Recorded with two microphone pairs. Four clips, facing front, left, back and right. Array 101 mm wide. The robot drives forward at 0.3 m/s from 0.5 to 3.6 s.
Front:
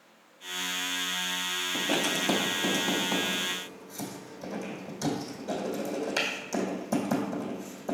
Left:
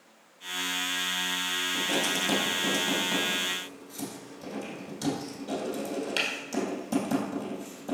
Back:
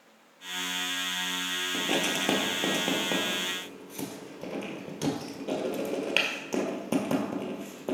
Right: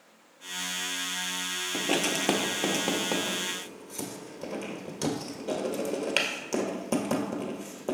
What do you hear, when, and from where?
1.7 s writing: 110° right, 1.3 m; by 7.9 s 135° right, 1.5 m